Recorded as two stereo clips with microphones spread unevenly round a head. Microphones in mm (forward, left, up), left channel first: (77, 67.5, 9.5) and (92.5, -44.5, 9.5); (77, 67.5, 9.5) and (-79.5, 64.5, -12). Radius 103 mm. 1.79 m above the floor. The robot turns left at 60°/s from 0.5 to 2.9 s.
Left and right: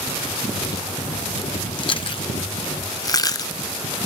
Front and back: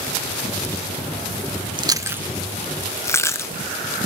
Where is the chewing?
125° left; by 3.5 s 55° left.